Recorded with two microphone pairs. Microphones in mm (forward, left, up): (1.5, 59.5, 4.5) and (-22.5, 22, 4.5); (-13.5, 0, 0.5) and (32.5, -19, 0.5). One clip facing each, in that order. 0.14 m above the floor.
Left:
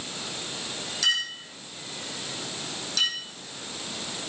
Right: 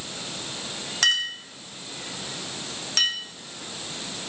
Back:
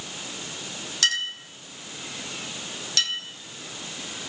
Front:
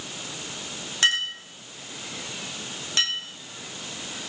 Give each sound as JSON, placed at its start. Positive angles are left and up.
{"t": 1.0, "sound": "a clink", "azimuth_deg": -85, "distance_m": 3.5}